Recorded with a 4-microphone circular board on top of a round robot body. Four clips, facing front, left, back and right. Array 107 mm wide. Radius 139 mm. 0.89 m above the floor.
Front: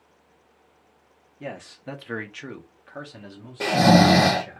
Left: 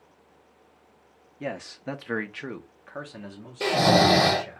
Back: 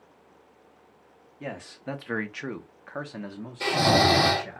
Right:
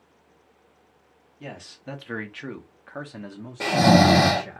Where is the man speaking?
95° left, 1.1 m; by 4.6 s 135° right, 1.5 m.